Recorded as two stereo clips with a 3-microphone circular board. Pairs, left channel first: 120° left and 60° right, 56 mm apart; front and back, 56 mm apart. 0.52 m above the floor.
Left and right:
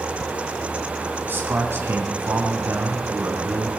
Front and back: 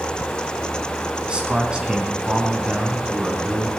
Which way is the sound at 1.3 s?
110° right.